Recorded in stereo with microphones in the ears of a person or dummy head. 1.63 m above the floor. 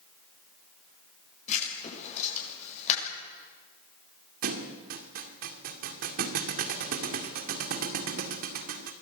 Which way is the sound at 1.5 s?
40° left (ahead or behind).